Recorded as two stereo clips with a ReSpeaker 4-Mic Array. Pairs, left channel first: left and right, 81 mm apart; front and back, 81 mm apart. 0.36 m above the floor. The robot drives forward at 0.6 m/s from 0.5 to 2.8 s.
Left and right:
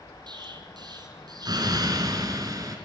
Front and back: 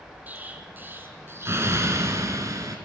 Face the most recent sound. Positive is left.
turn(degrees=-135)